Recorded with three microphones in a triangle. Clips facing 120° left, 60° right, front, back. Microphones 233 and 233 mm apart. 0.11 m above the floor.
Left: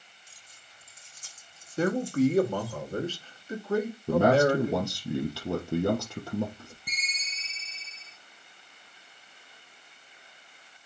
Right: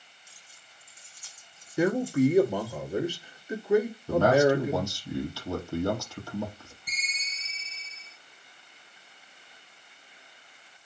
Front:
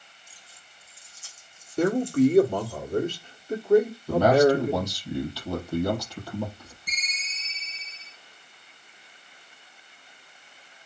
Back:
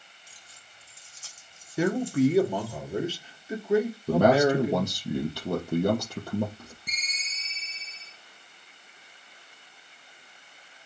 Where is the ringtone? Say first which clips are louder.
Left 1 dB, front 1 dB; 150° left, 4 m.